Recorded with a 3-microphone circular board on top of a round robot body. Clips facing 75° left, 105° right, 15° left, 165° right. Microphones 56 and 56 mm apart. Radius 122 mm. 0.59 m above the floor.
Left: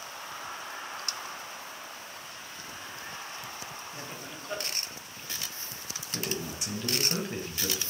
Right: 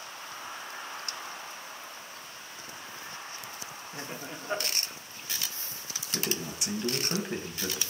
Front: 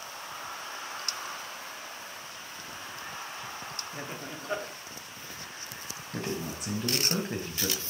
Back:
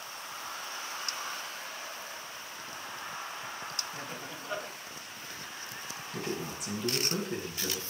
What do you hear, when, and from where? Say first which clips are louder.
3.9 s laughter: right 2 dB, front 2 dB; 50° right, 1.6 m
6.1 s a man speaking: right 1 dB, front 2 dB; 30° right, 4 m